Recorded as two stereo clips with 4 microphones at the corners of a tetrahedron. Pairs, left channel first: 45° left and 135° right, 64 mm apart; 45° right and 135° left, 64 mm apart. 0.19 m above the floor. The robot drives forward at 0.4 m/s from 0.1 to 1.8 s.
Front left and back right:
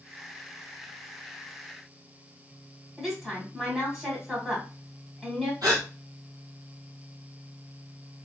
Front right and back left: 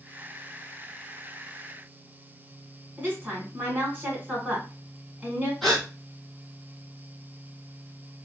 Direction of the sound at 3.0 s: 150° left.